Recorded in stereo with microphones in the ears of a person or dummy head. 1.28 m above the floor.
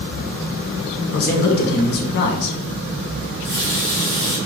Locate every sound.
1.1 s a man speaking: 50° left (ahead or behind), 0.9 m
3.2 s a running tap: 10° left (ahead or behind), 2 m